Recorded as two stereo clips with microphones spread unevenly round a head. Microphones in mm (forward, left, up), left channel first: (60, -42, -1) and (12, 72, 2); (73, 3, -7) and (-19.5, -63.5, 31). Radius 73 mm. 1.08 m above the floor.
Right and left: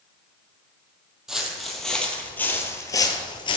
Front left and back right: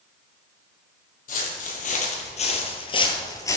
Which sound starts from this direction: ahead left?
Footsteps, at 1.3 s.